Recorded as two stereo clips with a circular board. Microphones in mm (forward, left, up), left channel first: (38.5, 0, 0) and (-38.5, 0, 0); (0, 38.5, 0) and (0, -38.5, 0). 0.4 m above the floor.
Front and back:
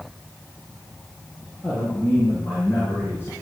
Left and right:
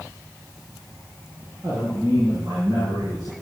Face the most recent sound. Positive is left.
turn(degrees=-60)